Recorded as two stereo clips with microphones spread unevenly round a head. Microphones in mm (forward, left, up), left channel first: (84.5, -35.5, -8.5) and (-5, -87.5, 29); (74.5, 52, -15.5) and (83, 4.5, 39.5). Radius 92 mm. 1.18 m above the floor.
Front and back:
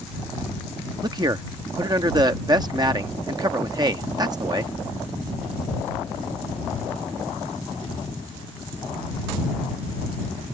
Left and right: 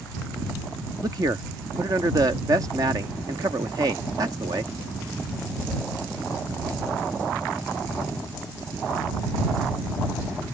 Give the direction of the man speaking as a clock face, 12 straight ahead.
3 o'clock.